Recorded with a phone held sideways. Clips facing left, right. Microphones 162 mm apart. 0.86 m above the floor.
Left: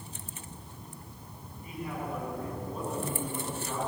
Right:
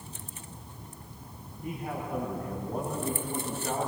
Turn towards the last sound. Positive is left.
turn(degrees=-55)  # may be behind; listen again after turning